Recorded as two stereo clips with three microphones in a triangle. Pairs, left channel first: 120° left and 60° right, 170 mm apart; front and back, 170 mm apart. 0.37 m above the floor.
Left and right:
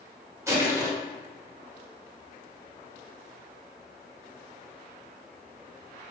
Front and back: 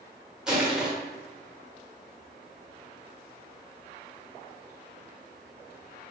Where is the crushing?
100° right, 1.4 m.